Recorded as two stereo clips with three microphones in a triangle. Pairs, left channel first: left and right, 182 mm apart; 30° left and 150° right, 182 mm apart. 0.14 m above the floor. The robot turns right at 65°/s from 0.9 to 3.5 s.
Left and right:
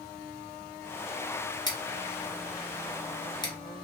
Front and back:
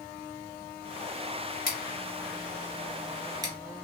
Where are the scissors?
30° left, 1.4 m; by 3.5 s 150° left, 1.4 m.